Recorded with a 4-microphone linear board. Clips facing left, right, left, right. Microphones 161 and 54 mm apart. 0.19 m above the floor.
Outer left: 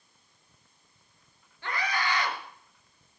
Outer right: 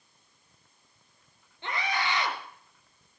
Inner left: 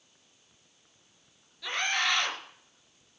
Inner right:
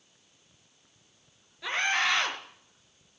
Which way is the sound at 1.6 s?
20° right (ahead or behind).